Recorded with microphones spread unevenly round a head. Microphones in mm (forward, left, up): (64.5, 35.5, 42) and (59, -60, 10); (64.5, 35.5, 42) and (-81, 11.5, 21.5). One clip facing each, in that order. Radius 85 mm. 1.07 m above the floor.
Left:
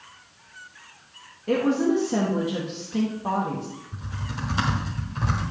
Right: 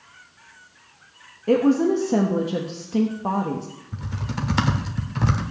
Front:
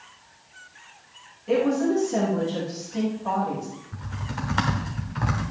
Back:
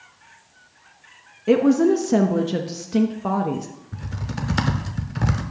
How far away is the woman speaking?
About 0.9 m.